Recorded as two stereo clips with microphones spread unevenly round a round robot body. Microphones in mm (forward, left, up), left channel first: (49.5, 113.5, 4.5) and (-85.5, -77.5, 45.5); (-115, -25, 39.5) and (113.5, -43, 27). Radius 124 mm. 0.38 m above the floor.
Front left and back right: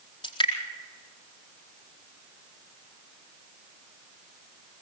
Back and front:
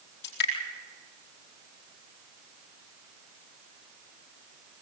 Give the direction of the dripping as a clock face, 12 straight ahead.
8 o'clock.